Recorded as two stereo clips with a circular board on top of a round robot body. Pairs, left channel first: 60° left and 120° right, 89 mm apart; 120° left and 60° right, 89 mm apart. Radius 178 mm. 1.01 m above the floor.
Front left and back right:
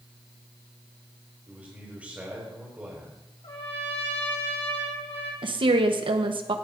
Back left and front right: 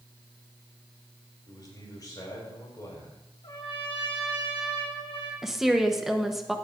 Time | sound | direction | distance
1.5 | a man speaking | 165° left | 4 m
3.4 | a trumpet | 85° left | 2 m
5.4 | a woman speaking | 145° right | 1.1 m